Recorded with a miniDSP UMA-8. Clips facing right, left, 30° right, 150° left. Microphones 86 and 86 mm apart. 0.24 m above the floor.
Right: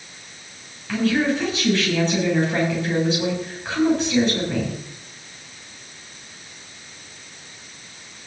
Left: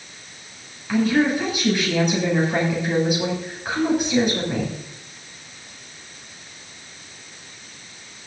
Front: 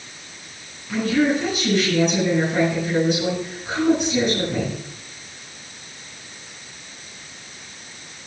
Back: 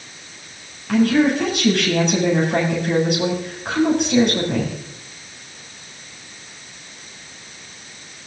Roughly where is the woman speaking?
Behind.